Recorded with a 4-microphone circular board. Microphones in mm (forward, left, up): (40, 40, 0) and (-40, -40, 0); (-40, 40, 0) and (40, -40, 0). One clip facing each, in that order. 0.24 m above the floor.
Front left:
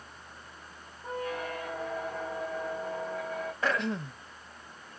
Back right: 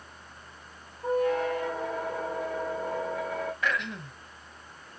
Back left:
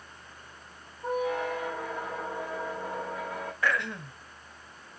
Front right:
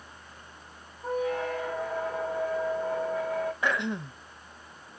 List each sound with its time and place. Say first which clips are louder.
1.0 s a squeak: back right 9 dB, even; 155° right, 2 m
3.6 s throat clearing: front left 2 dB, front right 1 dB; 15° left, 0.5 m